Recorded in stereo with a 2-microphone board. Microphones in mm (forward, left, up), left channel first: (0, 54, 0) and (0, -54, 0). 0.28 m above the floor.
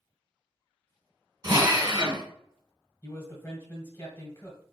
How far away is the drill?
About 1.1 m.